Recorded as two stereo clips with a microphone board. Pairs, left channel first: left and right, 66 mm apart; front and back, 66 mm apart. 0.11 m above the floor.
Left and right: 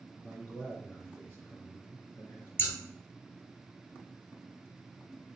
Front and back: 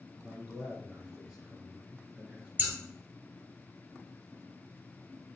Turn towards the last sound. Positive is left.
turn(degrees=135)